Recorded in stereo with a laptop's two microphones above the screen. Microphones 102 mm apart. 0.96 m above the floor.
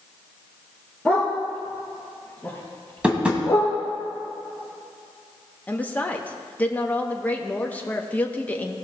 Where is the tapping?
10° right (ahead or behind), 2.5 m.